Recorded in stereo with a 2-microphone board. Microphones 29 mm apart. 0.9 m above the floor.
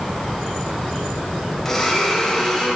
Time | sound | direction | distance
1.6 | a blender | 10° left (ahead or behind) | 3 m